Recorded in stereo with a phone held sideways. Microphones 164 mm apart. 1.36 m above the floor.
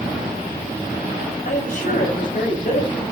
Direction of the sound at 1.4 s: 55° left (ahead or behind).